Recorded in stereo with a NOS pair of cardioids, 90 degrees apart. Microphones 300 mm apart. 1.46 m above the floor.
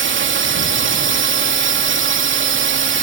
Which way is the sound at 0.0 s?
40° right.